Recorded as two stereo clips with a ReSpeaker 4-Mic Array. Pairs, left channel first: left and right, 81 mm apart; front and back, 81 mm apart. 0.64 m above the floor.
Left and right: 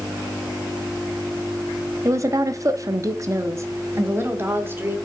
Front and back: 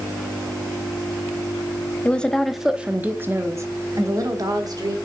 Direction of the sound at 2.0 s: 65° right.